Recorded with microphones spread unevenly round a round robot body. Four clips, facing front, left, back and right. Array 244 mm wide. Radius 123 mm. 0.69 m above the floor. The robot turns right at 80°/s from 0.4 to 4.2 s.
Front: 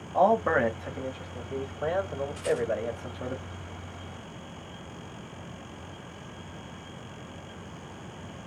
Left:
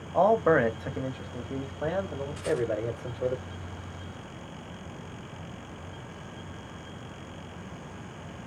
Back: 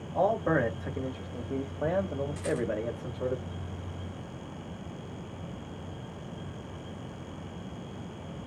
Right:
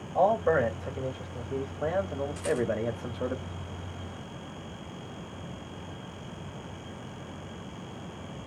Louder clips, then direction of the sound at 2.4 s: Left 1 dB, front 4 dB; 140° right.